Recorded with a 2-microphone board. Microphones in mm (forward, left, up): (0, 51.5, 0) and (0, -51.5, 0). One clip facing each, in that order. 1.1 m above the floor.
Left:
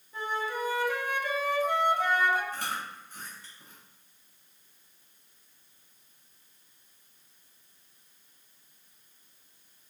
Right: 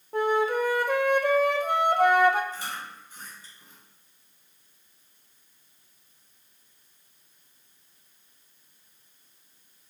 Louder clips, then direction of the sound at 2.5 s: Left 1 dB; 60° left (ahead or behind).